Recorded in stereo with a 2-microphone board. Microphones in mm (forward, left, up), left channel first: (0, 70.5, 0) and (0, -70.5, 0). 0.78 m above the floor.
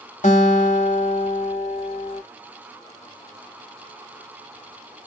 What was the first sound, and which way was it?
A guitar, 60° left (ahead or behind).